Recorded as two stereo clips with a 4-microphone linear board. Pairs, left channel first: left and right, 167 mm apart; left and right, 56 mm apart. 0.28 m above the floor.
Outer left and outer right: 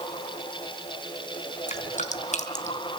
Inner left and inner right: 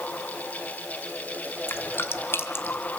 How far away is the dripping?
About 2 m.